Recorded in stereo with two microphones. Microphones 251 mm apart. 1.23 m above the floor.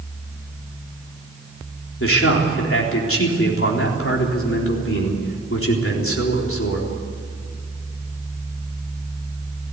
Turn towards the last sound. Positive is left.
turn(degrees=60)  # may be behind; listen again after turning